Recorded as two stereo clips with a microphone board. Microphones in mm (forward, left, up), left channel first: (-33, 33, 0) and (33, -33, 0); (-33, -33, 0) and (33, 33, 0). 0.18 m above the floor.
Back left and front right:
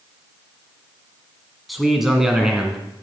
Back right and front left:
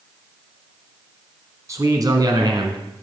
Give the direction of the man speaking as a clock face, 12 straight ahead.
11 o'clock.